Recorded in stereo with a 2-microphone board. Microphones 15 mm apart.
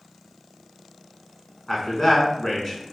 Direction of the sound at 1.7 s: 20° left (ahead or behind).